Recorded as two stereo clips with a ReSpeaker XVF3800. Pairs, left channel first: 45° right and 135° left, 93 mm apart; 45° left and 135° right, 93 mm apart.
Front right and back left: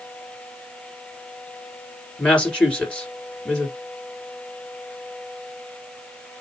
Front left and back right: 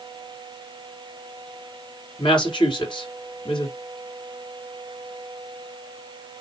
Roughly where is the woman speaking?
Ahead left.